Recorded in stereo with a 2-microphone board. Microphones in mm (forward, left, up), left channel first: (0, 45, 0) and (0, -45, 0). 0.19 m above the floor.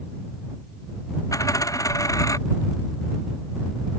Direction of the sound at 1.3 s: 40° left (ahead or behind).